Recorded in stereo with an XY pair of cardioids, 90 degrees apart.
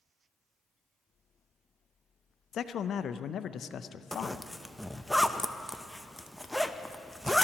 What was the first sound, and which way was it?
A man speaking, 65° left.